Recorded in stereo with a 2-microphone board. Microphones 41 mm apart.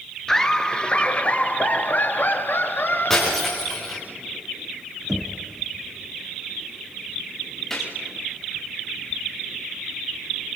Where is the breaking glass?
10° left (ahead or behind), 8.5 m.